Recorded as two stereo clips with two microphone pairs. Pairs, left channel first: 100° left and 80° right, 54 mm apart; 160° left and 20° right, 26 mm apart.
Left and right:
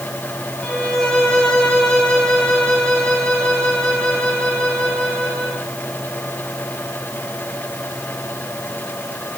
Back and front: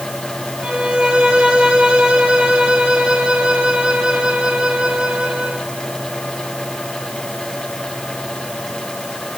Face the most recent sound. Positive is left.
turn(degrees=20)